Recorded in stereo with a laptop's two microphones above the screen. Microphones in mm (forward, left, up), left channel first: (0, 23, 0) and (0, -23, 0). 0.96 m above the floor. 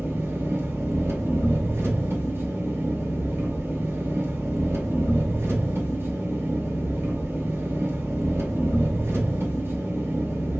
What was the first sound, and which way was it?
An engine running, 60° right (ahead or behind).